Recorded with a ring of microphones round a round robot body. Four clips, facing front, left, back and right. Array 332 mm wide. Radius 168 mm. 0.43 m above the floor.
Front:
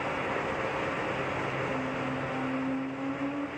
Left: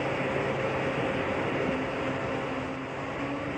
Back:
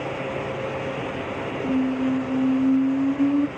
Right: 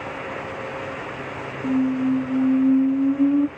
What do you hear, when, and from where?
1.6 s a squeak: 145° right, 0.5 m